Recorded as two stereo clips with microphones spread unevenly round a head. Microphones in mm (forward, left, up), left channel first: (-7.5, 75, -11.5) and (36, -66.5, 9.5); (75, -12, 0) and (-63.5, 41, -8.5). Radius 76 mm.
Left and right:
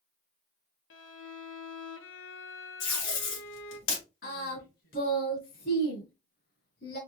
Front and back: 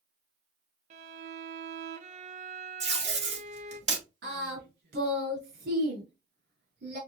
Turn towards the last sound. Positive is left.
turn(degrees=140)